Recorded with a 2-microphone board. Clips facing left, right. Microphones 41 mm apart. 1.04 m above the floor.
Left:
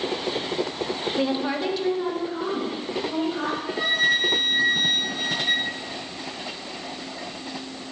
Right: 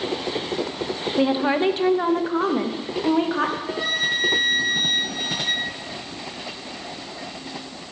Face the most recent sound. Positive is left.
turn(degrees=15)  # may be behind; listen again after turning